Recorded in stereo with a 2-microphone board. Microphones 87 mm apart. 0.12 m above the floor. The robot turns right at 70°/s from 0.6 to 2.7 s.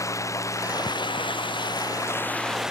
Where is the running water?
40° left; by 2.7 s 175° right.